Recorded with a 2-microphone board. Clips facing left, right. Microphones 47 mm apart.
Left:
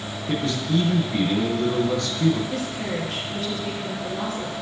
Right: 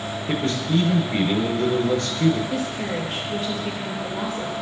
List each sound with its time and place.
0.3 s a man speaking: 35° right (ahead or behind), 1.3 m
2.5 s a woman speaking: 15° right (ahead or behind), 2.5 m